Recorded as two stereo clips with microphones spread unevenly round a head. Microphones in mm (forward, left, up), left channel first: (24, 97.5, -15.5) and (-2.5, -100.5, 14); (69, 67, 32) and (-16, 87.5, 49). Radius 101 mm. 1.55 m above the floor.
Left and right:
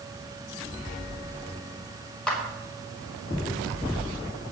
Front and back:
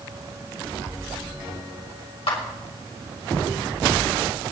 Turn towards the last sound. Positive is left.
turn(degrees=-5)